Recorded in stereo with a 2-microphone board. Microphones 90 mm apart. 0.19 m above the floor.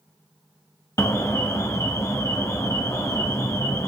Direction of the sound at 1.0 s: 35° left (ahead or behind).